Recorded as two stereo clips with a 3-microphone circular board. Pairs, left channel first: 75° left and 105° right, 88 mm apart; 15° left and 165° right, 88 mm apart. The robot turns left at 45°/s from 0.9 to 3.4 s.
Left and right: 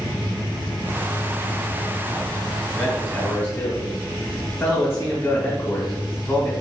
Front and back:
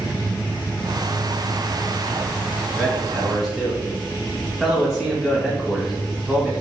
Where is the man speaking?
130° left, 1.1 m; by 6.5 s 105° left, 1.1 m.